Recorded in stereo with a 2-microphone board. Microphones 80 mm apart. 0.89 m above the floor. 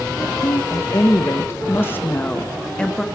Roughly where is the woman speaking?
Left.